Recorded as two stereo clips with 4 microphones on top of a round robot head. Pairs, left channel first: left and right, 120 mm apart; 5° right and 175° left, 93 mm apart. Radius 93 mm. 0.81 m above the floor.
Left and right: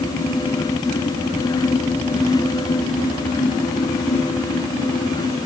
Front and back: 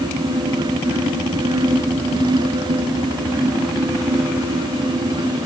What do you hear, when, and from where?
Only background noise.